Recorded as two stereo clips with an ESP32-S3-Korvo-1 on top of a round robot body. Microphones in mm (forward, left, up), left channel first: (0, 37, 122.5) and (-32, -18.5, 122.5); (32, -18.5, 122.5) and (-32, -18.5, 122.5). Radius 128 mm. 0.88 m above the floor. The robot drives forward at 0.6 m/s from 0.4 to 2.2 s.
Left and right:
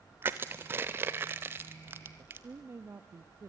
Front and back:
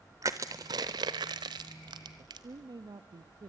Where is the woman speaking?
170° right, 1.3 m.